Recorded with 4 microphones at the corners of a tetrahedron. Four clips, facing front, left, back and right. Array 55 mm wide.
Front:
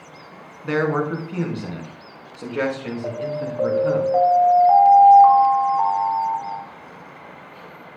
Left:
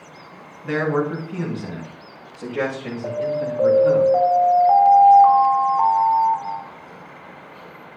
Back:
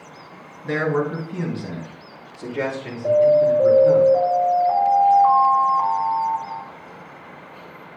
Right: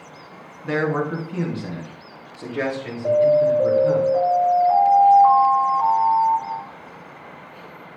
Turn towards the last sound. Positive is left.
turn(degrees=45)